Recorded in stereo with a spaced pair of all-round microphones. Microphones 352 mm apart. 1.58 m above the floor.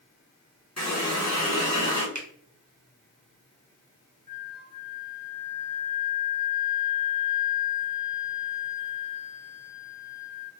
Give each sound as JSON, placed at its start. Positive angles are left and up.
{"t": 0.8, "sound": "a running tap", "side_deg": 50, "distance_m": 1.2}
{"t": 2.1, "sound": "a finger snap", "side_deg": -55, "distance_m": 0.9}
{"t": 4.3, "sound": "a flute", "side_deg": -30, "distance_m": 0.8}